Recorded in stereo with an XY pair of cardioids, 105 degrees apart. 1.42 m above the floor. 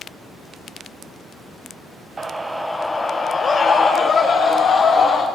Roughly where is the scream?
Ahead right.